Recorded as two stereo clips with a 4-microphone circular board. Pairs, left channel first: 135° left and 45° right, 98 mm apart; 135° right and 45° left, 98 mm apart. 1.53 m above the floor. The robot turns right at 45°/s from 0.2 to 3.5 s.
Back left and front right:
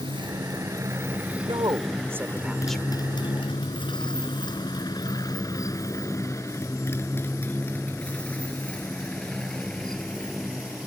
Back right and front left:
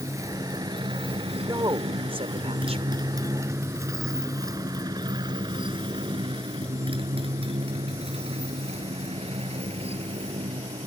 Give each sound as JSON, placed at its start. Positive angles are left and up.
{"t": 0.0, "sound": "a motorcycle", "azimuth_deg": -10}
{"t": 1.4, "sound": "a woman speaking", "azimuth_deg": -10}